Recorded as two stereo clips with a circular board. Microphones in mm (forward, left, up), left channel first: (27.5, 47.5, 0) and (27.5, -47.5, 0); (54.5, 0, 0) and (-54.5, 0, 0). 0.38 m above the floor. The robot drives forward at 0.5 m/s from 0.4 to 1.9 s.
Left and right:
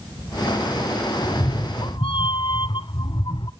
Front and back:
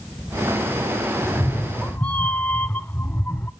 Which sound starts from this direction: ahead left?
A cat meowing, at 1.2 s.